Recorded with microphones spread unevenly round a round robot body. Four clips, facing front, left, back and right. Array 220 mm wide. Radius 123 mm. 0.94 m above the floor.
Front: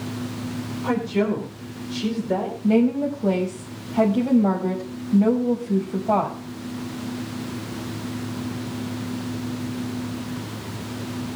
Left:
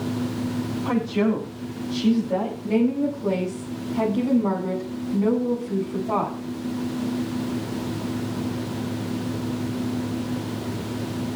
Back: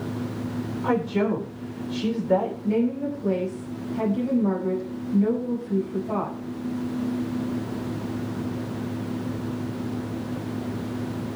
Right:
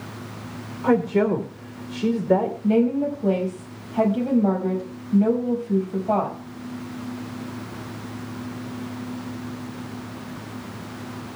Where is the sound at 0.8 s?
85° right, 3.5 m.